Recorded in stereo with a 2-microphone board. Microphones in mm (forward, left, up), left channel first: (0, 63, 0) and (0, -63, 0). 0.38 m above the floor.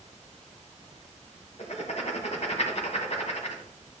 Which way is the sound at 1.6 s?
60° left (ahead or behind).